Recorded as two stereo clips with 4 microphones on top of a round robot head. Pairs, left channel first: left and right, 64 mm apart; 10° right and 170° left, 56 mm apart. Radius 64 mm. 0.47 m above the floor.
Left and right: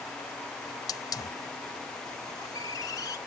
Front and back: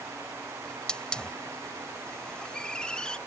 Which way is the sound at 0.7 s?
65° left.